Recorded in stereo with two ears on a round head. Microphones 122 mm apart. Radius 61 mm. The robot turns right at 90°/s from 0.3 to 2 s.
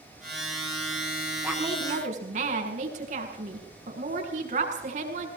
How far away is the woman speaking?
About 6.5 m.